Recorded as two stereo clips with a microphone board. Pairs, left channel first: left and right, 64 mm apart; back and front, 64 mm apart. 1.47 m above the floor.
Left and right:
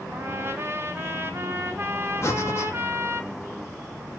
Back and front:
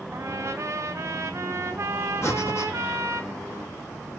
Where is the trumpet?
40° right, 1.5 m.